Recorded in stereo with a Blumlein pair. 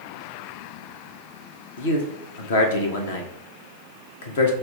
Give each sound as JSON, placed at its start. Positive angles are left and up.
{"t": 1.8, "sound": "a man speaking", "azimuth_deg": 55, "distance_m": 1.0}